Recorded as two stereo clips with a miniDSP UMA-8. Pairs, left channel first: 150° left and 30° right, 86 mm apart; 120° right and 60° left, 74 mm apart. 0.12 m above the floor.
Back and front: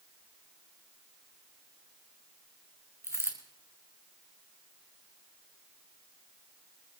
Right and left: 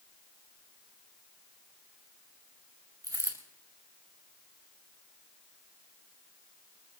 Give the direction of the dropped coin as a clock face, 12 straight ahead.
11 o'clock.